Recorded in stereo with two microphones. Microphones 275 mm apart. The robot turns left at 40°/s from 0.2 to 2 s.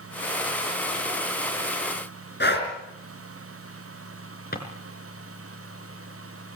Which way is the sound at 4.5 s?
35° left (ahead or behind).